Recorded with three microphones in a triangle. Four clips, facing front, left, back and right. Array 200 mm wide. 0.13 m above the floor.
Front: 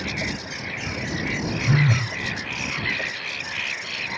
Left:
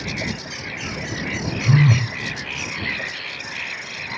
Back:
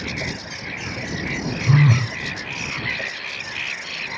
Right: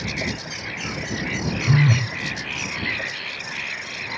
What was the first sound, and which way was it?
A phone buzzing, 160° left.